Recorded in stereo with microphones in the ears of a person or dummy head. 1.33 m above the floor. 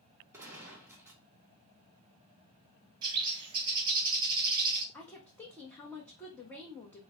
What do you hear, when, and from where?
0.3 s a gunshot: 10° right (ahead or behind), 1.0 m
3.0 s a bird: 25° right (ahead or behind), 1.1 m
4.9 s a woman speaking: 10° left (ahead or behind), 0.9 m